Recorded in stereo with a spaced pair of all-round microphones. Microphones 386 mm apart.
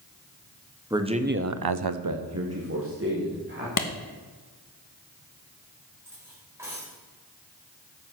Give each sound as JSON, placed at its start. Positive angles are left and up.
{"t": 0.9, "sound": "a man speaking", "side_deg": -10, "distance_m": 1.4}
{"t": 3.8, "sound": "a clap", "side_deg": 55, "distance_m": 1.1}
{"t": 6.0, "sound": "cutlery clinking", "side_deg": -5, "distance_m": 4.5}